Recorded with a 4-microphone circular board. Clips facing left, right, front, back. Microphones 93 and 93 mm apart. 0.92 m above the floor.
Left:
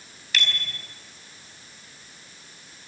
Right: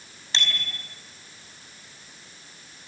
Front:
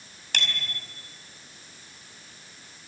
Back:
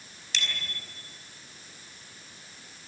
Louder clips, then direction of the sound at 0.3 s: Left 1 dB, front 3 dB; 30° right.